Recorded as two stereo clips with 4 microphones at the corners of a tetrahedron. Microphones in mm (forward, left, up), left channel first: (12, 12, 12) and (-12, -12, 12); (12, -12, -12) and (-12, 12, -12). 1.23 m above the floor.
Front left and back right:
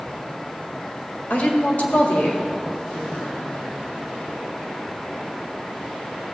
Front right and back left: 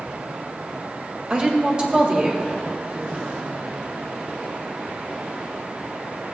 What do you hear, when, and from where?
1.3 s a woman speaking: 70° left, 1.9 m